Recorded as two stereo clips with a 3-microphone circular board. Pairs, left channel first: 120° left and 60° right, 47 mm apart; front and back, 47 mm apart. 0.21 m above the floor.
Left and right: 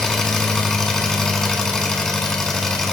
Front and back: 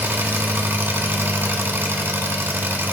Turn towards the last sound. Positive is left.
turn(degrees=-160)